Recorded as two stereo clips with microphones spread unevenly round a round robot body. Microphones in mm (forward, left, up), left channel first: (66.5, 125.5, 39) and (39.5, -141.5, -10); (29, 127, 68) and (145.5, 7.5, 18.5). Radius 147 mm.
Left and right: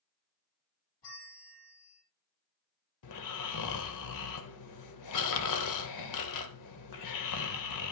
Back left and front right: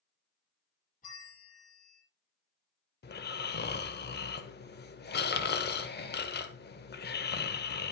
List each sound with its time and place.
1.0 s a bell: 95° left, 5.5 m
3.0 s snoring: 110° left, 1.3 m